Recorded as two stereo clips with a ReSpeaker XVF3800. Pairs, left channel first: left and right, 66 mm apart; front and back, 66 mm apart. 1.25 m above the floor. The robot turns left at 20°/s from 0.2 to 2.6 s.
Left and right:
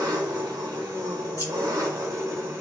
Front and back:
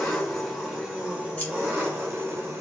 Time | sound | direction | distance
0.0 | an engine running | 85° right | 1.3 m
1.4 | scissors | 65° left | 1.2 m